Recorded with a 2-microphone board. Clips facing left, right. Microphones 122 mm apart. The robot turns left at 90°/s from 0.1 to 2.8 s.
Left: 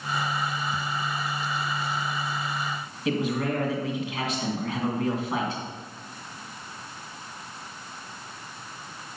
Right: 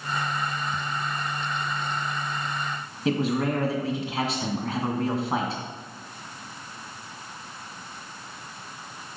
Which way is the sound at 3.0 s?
35° right (ahead or behind).